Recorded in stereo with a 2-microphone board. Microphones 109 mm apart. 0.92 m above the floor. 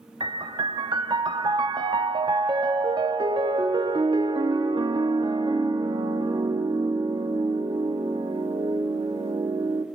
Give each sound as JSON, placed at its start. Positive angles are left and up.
{"t": 0.2, "sound": "a piano", "side_deg": -45, "distance_m": 0.7}